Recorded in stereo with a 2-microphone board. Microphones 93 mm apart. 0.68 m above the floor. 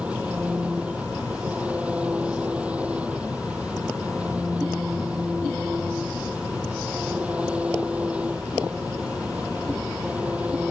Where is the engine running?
15° right (ahead or behind).